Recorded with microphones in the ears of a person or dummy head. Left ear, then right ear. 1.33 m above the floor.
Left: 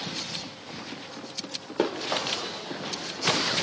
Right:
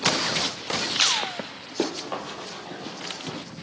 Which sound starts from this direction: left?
Running footsteps, at 1.8 s.